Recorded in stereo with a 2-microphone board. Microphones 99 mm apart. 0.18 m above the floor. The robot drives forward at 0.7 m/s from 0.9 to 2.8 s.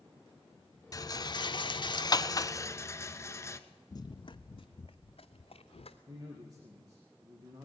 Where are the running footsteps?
35° left (ahead or behind), 0.6 m; by 6.0 s 75° left (ahead or behind), 1.8 m.